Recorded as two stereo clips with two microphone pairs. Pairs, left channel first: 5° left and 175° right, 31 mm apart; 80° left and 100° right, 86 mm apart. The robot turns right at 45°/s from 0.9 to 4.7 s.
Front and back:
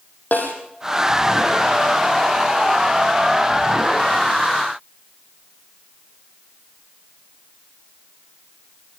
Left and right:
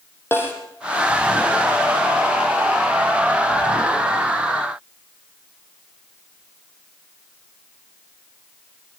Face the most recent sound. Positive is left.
turn(degrees=-170)